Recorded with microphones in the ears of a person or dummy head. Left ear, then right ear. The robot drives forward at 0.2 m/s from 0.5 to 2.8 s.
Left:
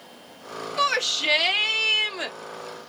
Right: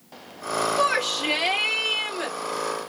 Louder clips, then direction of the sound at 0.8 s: Left 3 dB; 80° left.